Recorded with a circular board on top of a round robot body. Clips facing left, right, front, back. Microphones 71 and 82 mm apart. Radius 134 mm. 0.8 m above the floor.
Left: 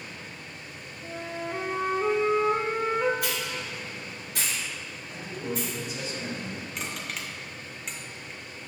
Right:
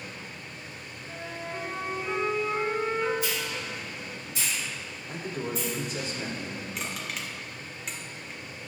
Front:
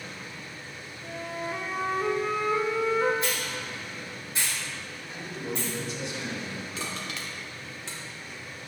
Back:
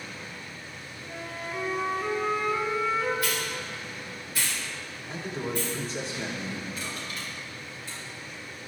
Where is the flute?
65° left, 1.4 m.